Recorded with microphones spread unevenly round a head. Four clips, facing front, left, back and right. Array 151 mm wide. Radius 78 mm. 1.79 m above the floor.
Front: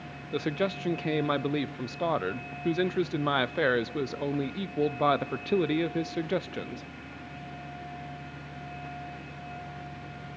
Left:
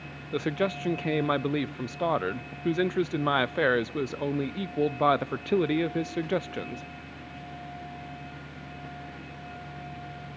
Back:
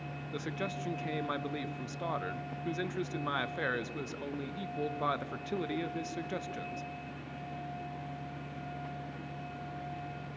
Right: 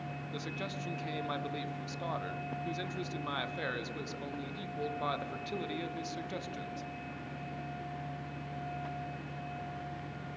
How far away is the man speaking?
About 0.6 m.